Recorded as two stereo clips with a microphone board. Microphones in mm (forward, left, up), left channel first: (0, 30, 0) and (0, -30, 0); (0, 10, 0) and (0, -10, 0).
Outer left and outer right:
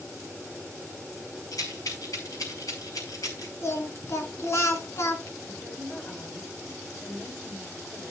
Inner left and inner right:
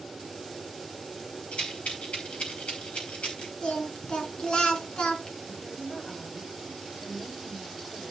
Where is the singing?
55° left (ahead or behind), 3 m.